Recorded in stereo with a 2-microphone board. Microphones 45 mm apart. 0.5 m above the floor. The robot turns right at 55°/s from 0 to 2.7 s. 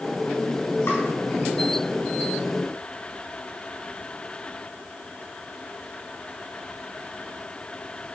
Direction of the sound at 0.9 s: 60° left (ahead or behind).